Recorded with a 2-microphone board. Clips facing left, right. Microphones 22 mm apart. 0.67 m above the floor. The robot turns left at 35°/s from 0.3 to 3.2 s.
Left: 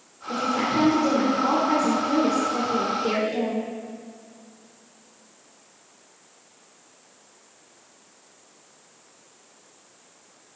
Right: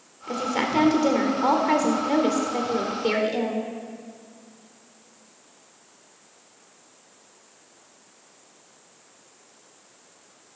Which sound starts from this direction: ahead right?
A woman speaking, at 0.3 s.